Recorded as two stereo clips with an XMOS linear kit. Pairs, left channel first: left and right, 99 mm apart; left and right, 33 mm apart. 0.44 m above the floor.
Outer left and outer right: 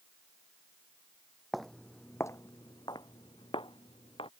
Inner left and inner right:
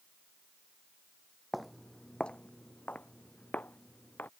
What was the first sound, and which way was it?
Footsteps, centre (ahead or behind).